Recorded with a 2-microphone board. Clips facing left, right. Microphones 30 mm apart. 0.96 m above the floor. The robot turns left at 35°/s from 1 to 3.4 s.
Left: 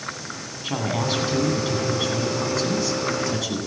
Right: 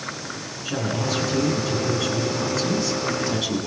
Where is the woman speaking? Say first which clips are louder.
Left 1 dB; 60° left, 9.5 m; by 3.6 s 25° right, 9.5 m.